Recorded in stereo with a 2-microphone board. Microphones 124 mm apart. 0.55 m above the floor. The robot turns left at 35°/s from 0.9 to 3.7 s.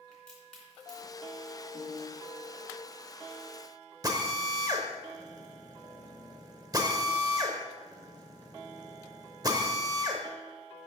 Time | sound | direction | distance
0.1 | a crack | 5° left (ahead or behind) | 3 m
1.7 | a piano | 60° right (ahead or behind) | 1.8 m
4.0 | a drill | 30° right (ahead or behind) | 0.8 m